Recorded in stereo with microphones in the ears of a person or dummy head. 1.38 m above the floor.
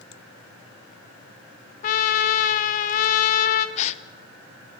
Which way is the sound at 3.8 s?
40° left (ahead or behind).